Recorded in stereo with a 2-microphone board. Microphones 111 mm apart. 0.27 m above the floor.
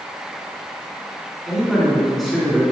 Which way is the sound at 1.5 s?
5° left (ahead or behind).